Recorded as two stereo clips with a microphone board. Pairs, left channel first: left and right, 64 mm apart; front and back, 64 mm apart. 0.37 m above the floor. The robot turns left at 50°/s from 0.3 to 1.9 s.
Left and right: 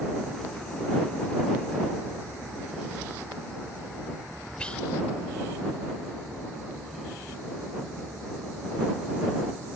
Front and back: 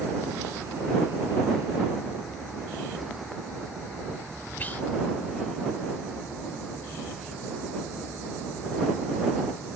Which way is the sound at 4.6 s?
30° left.